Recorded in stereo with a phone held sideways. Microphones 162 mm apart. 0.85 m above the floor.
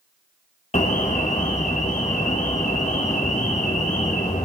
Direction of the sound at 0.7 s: 45° left (ahead or behind).